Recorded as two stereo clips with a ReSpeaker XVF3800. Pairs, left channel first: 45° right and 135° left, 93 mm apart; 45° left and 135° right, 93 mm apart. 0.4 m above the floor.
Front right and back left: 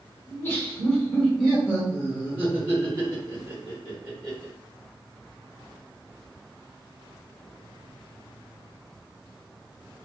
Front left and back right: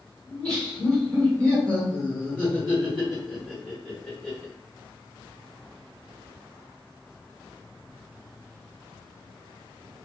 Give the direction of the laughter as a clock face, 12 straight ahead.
1 o'clock.